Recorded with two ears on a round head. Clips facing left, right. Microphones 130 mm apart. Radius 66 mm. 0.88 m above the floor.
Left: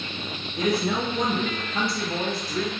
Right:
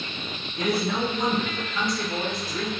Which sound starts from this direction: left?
A man speaking, at 0.6 s.